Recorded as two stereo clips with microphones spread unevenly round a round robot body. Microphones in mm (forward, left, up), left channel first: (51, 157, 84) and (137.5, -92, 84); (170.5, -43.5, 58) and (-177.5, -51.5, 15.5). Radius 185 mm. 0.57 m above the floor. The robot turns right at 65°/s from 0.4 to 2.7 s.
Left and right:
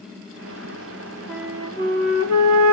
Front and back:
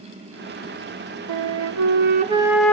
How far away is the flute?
About 0.5 m.